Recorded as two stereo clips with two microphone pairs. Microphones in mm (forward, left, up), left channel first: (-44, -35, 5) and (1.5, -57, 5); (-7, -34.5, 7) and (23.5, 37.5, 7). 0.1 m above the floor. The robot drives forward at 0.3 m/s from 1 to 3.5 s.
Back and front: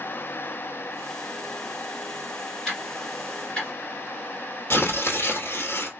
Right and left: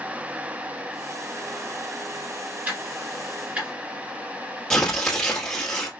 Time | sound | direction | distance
2.6 | ticking | 90° left | 1.9 m
4.7 | tearing paper | 165° left | 1.3 m